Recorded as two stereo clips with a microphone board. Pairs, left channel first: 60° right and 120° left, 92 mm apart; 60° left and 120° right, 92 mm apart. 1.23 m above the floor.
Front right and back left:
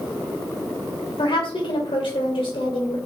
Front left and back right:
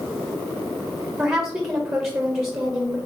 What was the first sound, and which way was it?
A woman speaking, 55° right.